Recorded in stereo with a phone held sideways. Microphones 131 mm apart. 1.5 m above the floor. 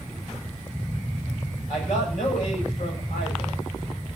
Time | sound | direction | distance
1.7 | a man speaking | 80° left | 7.5 m